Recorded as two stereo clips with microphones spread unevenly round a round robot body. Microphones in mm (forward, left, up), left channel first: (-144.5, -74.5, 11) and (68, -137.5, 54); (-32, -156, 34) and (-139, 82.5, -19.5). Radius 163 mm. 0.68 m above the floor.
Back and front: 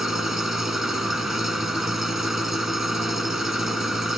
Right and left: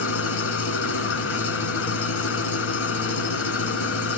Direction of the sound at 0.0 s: 105° right.